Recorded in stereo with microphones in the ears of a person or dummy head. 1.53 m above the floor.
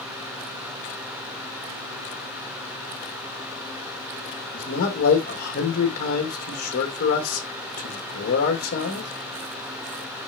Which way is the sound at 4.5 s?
45° left (ahead or behind).